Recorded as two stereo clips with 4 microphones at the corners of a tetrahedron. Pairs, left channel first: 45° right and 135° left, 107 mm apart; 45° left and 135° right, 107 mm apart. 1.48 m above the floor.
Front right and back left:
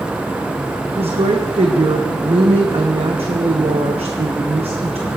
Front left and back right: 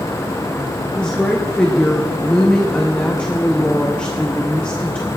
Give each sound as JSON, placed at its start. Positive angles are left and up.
{"t": 1.0, "sound": "a woman speaking", "azimuth_deg": 125, "distance_m": 0.8}